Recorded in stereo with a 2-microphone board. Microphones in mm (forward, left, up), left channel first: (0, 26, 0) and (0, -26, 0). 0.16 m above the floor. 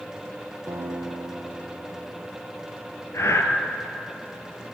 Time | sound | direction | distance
0.7 | a guitar | 70° right (ahead or behind) | 4.5 m
3.1 | breathing | 65° left (ahead or behind) | 3 m